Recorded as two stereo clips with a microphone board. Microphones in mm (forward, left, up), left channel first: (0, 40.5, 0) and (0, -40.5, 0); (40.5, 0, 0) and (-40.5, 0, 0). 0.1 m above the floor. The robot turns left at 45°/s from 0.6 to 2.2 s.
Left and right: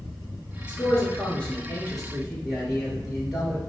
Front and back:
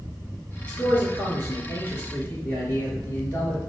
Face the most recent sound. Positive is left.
turn(degrees=-10)